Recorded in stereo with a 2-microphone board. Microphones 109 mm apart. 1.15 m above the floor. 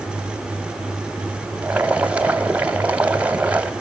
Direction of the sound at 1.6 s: 10° right (ahead or behind).